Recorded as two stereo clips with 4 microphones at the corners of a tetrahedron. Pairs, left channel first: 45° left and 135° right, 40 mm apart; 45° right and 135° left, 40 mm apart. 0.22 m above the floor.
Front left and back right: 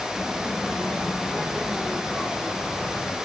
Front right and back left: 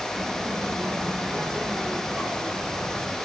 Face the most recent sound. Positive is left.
turn(degrees=95)